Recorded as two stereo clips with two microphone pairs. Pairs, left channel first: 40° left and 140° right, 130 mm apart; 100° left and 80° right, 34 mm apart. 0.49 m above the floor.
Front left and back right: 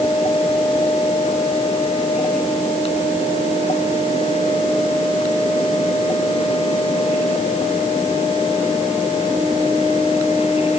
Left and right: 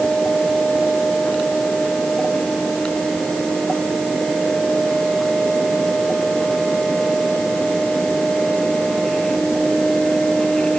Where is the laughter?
I don't hear laughter.